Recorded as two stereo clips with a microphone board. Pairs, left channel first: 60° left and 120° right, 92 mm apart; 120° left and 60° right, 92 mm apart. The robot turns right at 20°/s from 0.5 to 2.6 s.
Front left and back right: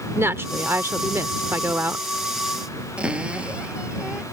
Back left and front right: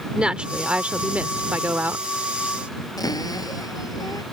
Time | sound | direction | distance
0.1 | a woman speaking | 125° right | ?
3.0 | a cupboard door | 165° left | ?